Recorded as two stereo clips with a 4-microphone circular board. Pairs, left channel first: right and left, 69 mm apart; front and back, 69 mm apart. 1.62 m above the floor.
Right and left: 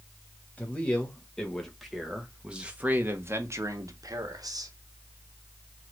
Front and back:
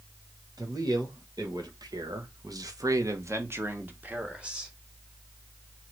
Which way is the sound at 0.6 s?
160° right.